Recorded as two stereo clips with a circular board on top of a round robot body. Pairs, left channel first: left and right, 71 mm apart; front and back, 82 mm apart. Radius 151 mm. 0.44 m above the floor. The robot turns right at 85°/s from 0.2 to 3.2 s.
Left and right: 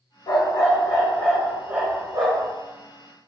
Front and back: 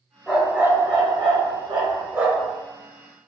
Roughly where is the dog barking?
Left.